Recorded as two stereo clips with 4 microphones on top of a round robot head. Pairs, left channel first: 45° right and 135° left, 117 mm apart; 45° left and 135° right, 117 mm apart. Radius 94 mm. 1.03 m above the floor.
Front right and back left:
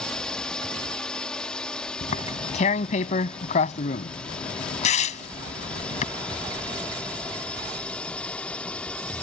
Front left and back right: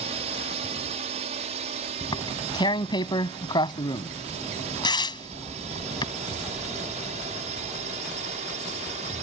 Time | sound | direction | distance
0.0 | a drone | 125° right | ?
2.0 | tearing paper | 10° right | ?